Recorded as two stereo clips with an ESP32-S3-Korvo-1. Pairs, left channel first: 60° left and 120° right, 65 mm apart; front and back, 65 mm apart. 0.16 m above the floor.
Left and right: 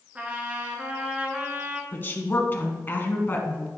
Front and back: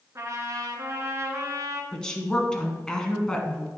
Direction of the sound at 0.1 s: 175° left.